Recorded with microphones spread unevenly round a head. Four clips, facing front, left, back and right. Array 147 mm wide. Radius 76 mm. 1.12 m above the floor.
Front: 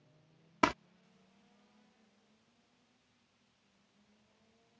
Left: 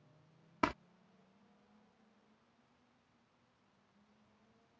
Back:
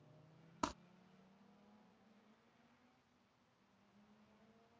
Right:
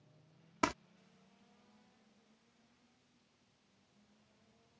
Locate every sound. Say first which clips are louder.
0.6 s crumpling: even, front 13 dB; 15° right